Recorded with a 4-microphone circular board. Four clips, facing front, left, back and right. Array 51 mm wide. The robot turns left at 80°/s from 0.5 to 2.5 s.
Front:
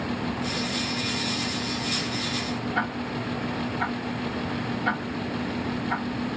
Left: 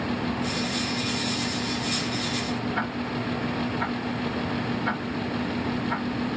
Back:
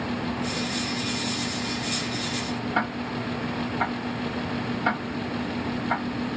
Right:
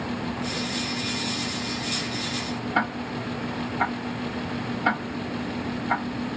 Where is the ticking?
120° right, 0.9 m.